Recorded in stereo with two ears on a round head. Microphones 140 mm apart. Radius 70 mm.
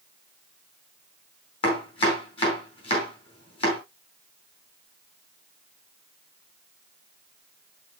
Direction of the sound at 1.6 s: 35° left (ahead or behind).